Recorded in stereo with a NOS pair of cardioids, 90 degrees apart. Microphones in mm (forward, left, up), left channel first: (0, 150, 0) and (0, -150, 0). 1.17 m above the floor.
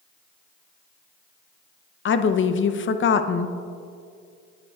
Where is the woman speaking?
40° left, 0.7 m.